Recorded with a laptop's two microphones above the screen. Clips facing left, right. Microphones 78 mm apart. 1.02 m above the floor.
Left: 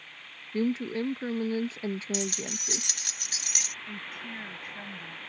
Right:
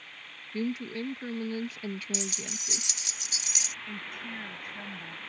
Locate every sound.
0.5 s a woman speaking: 30° left (ahead or behind)
2.1 s keys jangling: 55° left (ahead or behind)
3.9 s a woman speaking: centre (ahead or behind)